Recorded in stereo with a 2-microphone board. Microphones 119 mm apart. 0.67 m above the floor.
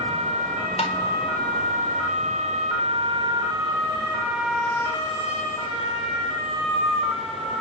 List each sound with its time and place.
0.8 s tapping: 60° left (ahead or behind), 3 m